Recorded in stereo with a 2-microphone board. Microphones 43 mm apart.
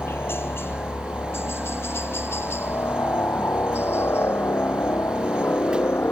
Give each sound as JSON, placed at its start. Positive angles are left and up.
{"t": 0.0, "sound": "a helicopter", "side_deg": 60}